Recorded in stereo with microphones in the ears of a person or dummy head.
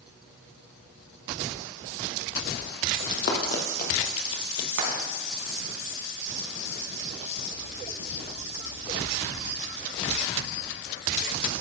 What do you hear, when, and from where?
3.0 s running footsteps: 55° left (ahead or behind), 2 m; by 4.7 s 20° left (ahead or behind), 1.4 m
4.8 s frying: 70° right (ahead or behind), 3.5 m